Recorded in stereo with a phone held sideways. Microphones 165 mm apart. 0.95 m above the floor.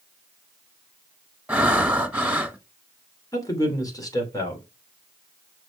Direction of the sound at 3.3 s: 20° left (ahead or behind).